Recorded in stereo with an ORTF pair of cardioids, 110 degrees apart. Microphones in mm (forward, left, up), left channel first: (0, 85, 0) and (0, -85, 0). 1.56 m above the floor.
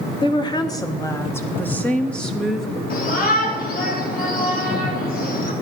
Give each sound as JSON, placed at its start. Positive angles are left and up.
{"t": 0.2, "sound": "a woman speaking", "azimuth_deg": 30, "distance_m": 2.0}
{"t": 2.9, "sound": "a shout", "azimuth_deg": 55, "distance_m": 4.5}